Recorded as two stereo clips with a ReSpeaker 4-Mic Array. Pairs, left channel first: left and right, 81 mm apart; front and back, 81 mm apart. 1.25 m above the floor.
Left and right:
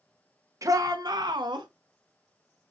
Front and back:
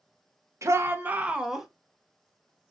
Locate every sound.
0.6 s a shout: 130° right, 0.9 m; by 1.7 s 90° right, 1.0 m